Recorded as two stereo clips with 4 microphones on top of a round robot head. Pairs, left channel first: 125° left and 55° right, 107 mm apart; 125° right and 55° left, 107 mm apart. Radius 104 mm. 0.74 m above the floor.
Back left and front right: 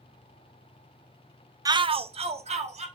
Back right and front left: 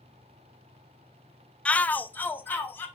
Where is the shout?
50° right, 0.6 m.